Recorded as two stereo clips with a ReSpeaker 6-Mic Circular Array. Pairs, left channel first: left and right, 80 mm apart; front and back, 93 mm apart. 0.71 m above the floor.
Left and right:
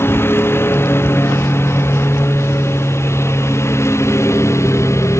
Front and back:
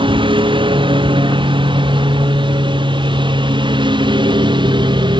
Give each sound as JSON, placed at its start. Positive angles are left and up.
{"t": 0.0, "sound": "a lawn mower", "azimuth_deg": 150}